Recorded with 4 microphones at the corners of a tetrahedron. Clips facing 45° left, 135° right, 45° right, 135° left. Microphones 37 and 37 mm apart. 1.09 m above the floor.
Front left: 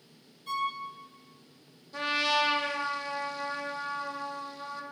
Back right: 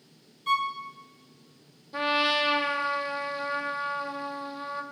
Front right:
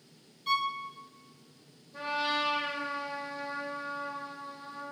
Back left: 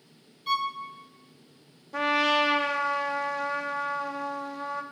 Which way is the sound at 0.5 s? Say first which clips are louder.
Back right 5 dB, back left 2 dB; 140° right.